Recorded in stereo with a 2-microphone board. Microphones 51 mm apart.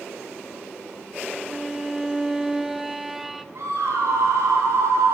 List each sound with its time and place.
1.3 s a violin: 5° right (ahead or behind), 0.5 m
3.5 s a scream: 55° right (ahead or behind), 7.5 m